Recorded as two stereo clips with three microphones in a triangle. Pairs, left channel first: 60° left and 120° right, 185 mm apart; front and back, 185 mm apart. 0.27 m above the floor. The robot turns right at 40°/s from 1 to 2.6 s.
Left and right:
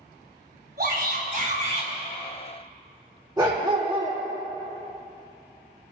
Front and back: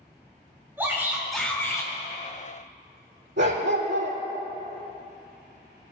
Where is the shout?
105° right, 3.5 m; by 1.9 s 65° right, 3.5 m.